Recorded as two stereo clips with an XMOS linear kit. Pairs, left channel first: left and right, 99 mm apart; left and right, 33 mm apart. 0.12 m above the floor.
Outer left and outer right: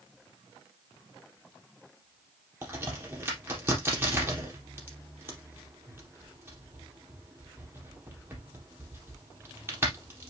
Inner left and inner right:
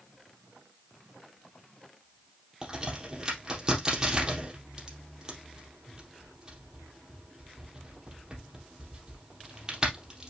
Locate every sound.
2.6 s a crack: 25° right (ahead or behind), 3.5 m